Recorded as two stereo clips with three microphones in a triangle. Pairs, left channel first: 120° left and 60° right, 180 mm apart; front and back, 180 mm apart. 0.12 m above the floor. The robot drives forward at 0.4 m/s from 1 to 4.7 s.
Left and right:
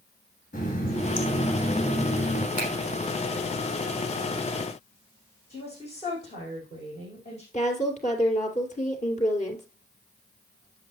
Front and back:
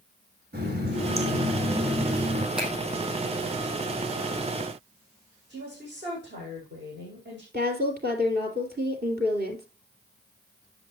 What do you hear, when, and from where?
0.5 s a running tap: 160° left, 3.5 m
2.6 s a finger snap: 95° right, 4.5 m
5.5 s a woman speaking: 170° left, 5.5 m
7.5 s a woman speaking: 165° left, 2.5 m